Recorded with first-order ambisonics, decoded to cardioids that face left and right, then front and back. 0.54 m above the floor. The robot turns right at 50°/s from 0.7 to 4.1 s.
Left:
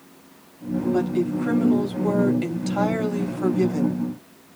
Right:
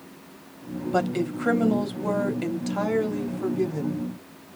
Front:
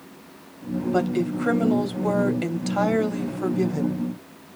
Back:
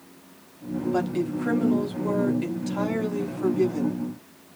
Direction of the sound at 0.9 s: 75° right.